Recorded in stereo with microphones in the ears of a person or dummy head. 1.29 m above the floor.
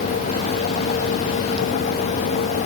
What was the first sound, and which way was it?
Only background noise.